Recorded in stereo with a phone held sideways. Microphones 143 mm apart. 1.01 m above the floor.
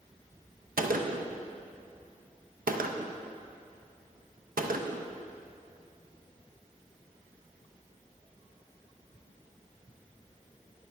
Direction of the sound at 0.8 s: 75° right (ahead or behind).